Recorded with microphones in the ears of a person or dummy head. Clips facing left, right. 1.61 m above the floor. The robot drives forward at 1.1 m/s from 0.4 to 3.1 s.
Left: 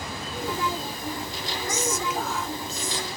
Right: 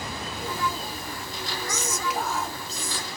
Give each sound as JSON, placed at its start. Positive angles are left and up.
{"t": 1.7, "sound": "whispering", "side_deg": -75, "distance_m": 0.6}